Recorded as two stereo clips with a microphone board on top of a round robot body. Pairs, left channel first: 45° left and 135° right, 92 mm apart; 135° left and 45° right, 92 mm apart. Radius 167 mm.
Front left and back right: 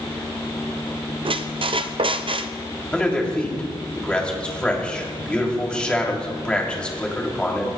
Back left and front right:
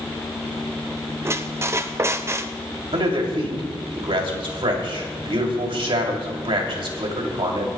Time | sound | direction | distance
1.2 | a squeak | 105° right | 0.6 m
2.9 | a man speaking | 35° right | 3 m